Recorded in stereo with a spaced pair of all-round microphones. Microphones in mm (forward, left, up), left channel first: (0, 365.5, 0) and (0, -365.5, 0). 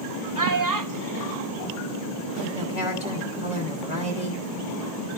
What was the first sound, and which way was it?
A child speaking, 25° right (ahead or behind).